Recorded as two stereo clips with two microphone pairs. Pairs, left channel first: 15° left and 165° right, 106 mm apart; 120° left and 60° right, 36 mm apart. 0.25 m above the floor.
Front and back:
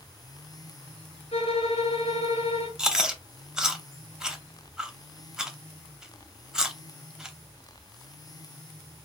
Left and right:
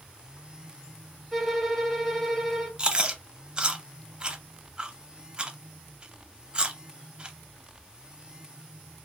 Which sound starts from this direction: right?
Chewing, at 2.8 s.